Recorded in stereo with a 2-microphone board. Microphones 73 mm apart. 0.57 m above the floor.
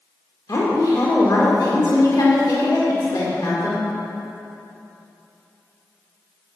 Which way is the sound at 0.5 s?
55° left (ahead or behind).